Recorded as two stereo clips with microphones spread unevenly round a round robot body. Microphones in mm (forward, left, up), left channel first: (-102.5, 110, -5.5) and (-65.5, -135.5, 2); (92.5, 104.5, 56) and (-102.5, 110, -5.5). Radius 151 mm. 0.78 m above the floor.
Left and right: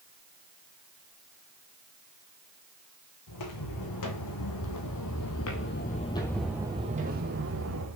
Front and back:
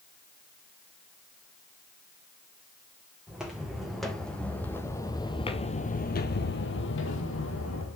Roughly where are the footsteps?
Left.